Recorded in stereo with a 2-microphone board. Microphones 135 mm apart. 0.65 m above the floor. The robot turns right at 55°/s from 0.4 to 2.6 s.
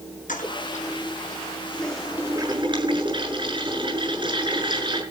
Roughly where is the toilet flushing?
Left.